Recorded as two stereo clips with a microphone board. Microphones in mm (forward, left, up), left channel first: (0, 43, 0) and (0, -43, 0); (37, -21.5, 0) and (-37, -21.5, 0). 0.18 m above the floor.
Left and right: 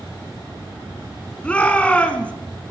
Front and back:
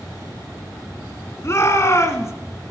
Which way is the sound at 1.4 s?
20° left.